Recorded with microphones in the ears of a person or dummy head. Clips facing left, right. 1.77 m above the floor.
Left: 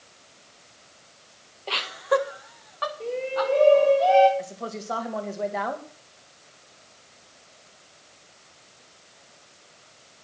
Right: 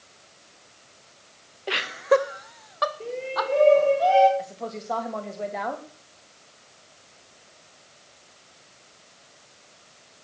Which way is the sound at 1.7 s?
25° right (ahead or behind).